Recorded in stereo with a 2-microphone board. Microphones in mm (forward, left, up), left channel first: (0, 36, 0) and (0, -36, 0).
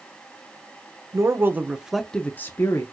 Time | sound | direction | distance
1.1 | a man speaking | 45° right (ahead or behind) | 0.6 m